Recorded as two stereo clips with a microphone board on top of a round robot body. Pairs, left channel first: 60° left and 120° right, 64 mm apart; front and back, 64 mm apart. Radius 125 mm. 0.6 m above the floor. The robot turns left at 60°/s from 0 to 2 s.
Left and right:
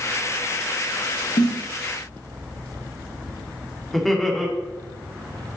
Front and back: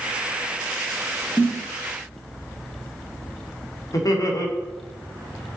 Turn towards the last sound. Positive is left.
turn(degrees=-30)